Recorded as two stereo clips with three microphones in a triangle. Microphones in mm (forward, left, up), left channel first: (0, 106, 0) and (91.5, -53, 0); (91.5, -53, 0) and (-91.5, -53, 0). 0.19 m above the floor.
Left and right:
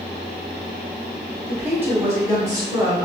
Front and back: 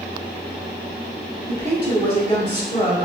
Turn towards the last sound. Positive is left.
turn(degrees=0)